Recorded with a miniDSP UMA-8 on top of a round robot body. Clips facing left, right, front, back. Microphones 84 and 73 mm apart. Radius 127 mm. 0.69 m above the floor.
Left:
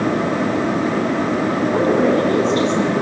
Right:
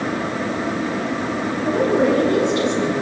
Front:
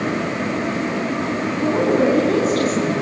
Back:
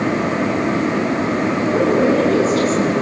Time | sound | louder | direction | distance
1.6 | a woman speaking | even, even | 40° left | 6.5 m